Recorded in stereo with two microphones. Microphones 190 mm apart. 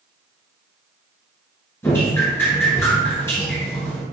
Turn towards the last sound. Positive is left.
turn(degrees=15)  # may be behind; listen again after turning